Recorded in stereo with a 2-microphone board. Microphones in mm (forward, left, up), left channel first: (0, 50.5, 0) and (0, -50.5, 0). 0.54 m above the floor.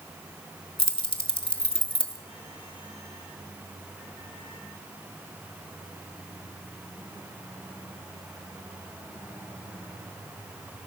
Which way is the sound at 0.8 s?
65° left (ahead or behind).